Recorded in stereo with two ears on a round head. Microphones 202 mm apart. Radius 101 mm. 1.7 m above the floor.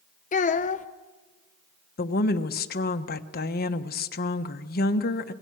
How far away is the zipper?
No zipper in this recording.